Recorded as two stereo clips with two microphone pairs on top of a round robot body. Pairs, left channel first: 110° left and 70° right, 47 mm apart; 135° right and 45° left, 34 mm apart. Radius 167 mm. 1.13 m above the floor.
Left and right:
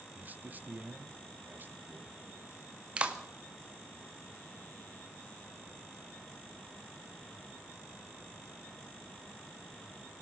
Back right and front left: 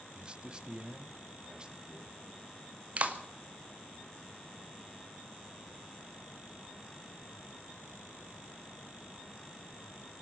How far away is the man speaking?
About 0.9 m.